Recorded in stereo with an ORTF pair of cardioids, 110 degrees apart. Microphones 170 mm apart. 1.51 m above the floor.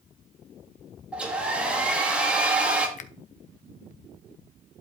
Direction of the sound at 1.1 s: 5° right.